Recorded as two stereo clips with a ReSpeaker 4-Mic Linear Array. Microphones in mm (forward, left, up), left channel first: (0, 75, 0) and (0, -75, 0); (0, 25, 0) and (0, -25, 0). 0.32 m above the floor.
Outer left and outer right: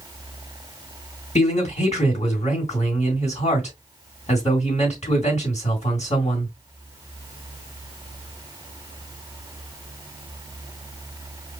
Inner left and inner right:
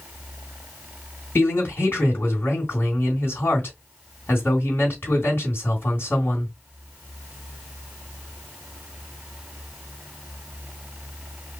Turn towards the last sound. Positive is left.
turn(degrees=50)  # may be behind; listen again after turning